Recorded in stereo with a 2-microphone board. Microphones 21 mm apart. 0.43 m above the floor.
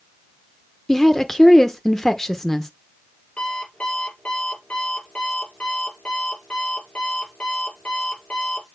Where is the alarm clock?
65° left (ahead or behind), 5 m.